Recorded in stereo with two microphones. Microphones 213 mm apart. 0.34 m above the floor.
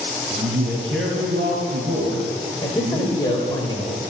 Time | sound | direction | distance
0.3 | a man speaking | 60° right (ahead or behind) | 2 m
2.6 | a man speaking | 20° left (ahead or behind) | 1.2 m